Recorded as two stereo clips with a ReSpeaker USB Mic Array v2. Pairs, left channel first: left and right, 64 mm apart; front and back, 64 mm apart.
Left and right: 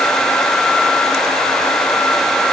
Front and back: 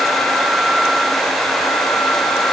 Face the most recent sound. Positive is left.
No sound to turn to.